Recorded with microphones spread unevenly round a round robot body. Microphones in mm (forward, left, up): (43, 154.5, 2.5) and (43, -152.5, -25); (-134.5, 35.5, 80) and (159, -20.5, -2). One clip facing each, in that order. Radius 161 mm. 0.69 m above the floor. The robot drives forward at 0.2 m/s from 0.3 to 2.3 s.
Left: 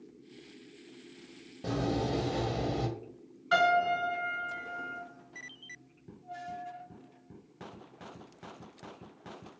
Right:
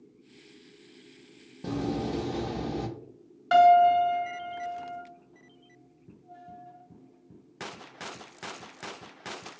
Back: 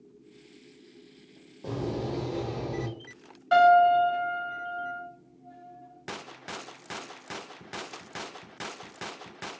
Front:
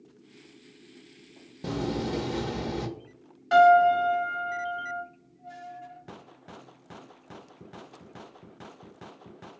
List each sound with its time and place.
1.6 s a door slam: 20° right, 0.7 m; by 2.9 s 30° right, 0.6 m
3.5 s a piano: 100° right, 1.5 m